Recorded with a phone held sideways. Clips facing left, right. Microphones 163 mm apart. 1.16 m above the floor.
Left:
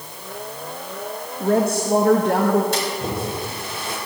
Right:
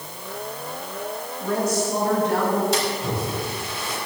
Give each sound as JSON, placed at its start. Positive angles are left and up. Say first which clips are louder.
{"t": 1.4, "sound": "a woman speaking", "louder": "left 4 dB", "side_deg": 55, "distance_m": 1.5}
{"t": 2.7, "sound": "a splash", "louder": "even", "side_deg": 55, "distance_m": 5.5}